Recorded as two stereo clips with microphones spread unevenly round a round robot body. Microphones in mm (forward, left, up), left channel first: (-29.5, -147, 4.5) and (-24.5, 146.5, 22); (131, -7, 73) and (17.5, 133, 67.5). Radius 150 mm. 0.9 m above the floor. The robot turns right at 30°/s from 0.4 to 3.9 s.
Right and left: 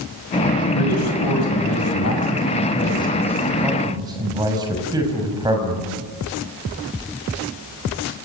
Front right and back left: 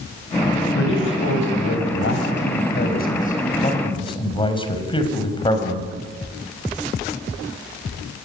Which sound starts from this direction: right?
A man speaking, at 0.8 s.